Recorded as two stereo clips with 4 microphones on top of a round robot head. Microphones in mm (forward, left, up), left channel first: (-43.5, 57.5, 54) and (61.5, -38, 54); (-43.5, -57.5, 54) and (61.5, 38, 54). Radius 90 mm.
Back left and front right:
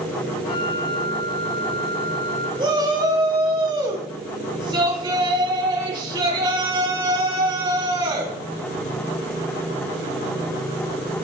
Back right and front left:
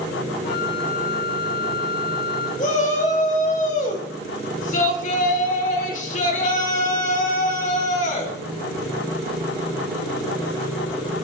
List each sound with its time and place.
0.4 s a flute: 170° right, 8 m
2.6 s a shout: 105° right, 3.5 m